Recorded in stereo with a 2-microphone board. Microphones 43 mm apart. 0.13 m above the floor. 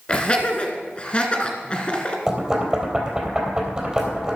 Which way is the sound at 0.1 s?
25° left (ahead or behind).